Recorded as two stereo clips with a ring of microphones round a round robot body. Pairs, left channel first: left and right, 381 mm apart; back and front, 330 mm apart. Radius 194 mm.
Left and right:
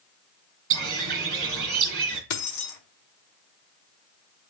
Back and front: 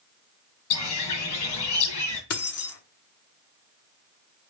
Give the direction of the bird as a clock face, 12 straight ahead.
5 o'clock.